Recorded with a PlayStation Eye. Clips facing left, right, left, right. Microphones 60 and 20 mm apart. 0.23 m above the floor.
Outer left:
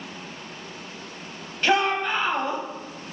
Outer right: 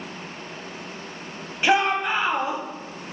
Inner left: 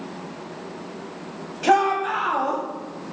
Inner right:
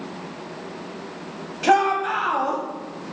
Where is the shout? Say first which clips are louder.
Outer right 1 dB, even; 15° right (ahead or behind), 1.0 m.